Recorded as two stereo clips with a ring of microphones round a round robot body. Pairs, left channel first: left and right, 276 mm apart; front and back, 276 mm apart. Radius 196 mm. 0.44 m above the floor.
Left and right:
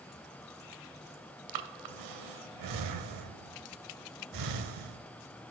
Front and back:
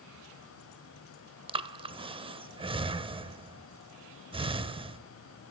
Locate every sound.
1.5 s breathing: 105° right, 0.6 m